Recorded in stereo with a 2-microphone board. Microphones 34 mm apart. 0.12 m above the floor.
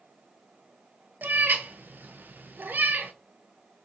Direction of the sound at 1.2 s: 65° right (ahead or behind).